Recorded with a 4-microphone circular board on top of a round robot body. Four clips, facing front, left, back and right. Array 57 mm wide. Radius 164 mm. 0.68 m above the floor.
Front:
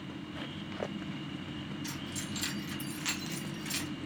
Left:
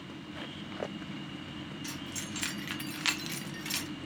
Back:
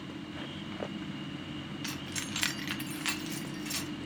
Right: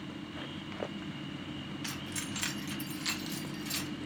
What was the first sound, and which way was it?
Keys jangling, 150° right.